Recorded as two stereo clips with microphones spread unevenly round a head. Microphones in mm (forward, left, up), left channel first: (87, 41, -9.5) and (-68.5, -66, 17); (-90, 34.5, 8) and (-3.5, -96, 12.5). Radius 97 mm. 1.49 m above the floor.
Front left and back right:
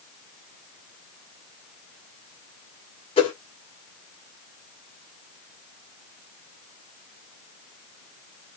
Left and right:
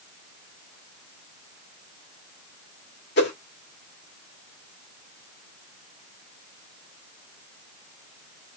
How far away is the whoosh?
About 2.0 m.